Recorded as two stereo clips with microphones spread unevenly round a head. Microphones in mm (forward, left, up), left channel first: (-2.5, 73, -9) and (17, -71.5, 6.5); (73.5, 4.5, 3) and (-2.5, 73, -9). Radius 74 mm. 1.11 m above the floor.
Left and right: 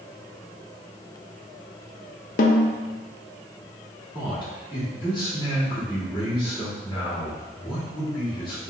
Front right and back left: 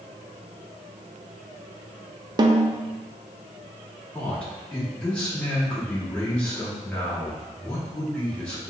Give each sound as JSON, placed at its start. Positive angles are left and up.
{"t": 2.4, "sound": "a snare drum", "azimuth_deg": 100, "distance_m": 0.6}
{"t": 4.1, "sound": "a man speaking", "azimuth_deg": 40, "distance_m": 2.0}